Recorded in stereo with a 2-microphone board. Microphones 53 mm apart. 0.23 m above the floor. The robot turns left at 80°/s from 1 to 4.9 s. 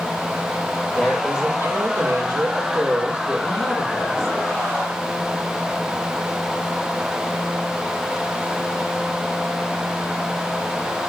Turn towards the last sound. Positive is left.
turn(degrees=55)